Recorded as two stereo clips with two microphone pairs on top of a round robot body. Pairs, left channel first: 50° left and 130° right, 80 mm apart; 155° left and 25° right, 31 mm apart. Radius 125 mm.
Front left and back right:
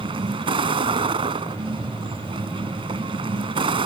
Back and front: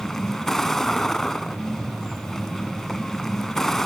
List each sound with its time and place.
0.0 s a vehicle: 125° right